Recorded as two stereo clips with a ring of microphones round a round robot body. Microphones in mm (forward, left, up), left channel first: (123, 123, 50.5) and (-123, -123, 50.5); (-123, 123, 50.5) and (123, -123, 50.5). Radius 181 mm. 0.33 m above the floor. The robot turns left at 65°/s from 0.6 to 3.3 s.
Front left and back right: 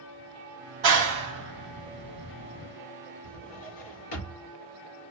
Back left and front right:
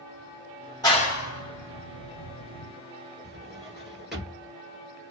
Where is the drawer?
45° left, 2.5 m.